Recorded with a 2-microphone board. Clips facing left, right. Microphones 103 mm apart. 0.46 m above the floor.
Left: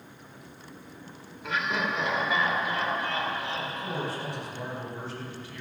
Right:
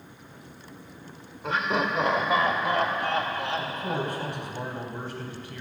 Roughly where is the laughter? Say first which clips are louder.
Right 3 dB; right.